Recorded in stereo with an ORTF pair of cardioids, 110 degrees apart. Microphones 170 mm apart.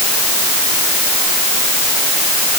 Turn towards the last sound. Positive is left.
No sound to turn to.